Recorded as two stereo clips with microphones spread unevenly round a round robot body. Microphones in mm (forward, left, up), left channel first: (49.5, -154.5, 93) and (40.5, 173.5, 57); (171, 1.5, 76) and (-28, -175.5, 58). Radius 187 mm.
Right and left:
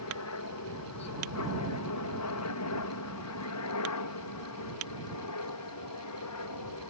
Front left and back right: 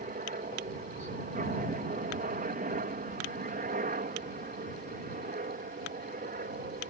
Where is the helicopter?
95° right.